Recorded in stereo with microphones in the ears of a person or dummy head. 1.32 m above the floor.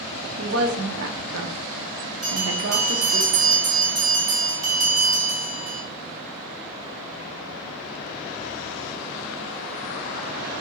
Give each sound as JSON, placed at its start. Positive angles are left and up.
{"t": 0.4, "sound": "a woman speaking", "side_deg": -70, "distance_m": 0.7}
{"t": 2.2, "sound": "a bell", "side_deg": -25, "distance_m": 2.0}